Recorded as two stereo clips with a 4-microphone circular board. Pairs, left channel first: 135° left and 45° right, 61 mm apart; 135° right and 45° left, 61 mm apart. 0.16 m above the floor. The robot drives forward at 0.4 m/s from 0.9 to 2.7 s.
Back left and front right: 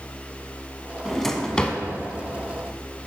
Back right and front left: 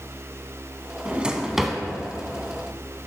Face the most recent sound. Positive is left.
turn(degrees=165)